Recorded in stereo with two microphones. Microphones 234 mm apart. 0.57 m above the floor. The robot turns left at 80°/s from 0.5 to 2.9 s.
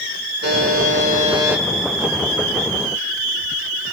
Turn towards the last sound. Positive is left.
turn(degrees=80)